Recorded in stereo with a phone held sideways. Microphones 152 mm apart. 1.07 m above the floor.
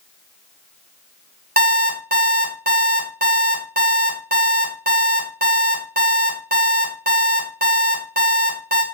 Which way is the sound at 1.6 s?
70° right (ahead or behind).